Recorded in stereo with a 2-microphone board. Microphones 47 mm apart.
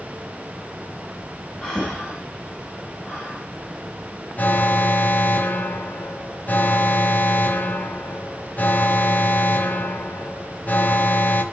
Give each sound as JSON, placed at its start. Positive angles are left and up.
{"t": 1.6, "sound": "breathing", "side_deg": 5, "distance_m": 9.0}
{"t": 4.4, "sound": "an alarm", "side_deg": 40, "distance_m": 1.3}